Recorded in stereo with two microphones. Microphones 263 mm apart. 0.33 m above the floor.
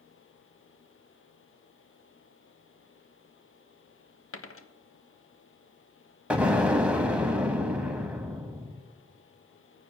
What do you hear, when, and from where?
4.3 s a dropped coin: 55° left (ahead or behind), 0.7 m
6.3 s an explosion: 5° right (ahead or behind), 1.0 m